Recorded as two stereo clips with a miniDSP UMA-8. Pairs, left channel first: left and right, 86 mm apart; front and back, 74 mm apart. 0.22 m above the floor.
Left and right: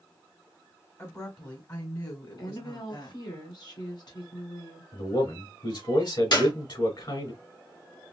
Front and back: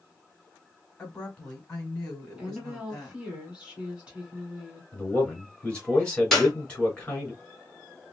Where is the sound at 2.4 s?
105° left, 2.0 m.